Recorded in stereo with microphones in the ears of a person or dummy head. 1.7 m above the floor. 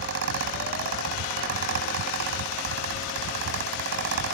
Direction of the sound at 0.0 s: 60° right (ahead or behind).